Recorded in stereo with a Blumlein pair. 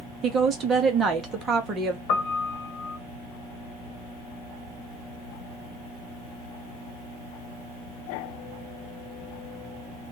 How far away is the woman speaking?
About 1.2 m.